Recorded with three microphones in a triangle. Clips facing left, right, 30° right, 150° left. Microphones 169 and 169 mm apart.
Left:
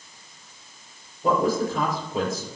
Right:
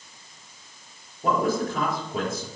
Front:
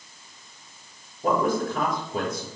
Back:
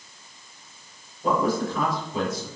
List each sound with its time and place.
1.2 s a man speaking: 65° right, 4 m